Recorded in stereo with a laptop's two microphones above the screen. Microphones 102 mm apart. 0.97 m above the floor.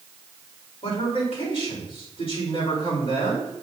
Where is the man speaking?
60° left (ahead or behind), 3.5 m.